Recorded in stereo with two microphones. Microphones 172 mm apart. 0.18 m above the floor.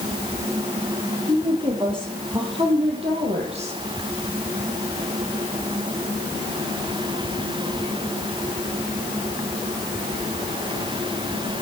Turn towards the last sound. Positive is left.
turn(degrees=-40)  # may be behind; listen again after turning